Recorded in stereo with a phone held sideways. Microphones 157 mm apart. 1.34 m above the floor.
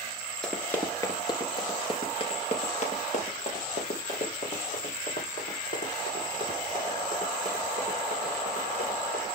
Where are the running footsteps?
5° left (ahead or behind), 1.3 m; by 9.2 s 65° left (ahead or behind), 6 m.